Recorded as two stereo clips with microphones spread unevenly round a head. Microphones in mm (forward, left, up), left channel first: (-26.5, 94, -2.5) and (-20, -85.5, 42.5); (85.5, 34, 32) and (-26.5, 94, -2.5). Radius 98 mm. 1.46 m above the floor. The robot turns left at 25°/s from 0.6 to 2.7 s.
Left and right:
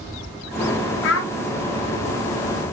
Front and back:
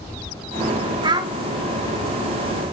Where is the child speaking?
95° left, 0.5 m; by 1.3 s 85° left, 0.5 m.